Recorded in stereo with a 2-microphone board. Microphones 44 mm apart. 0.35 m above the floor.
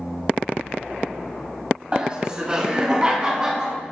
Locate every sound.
1.9 s laughter: 25° right (ahead or behind), 2.5 m; by 3.8 s 15° right (ahead or behind), 4 m